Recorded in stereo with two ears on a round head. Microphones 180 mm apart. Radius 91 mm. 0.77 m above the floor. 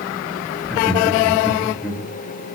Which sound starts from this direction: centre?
Laughter, at 0.6 s.